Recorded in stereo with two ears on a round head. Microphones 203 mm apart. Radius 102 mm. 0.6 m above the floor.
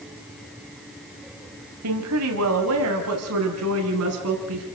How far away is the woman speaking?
About 3.5 m.